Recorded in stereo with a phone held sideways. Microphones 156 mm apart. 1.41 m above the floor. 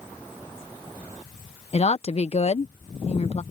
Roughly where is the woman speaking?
Left.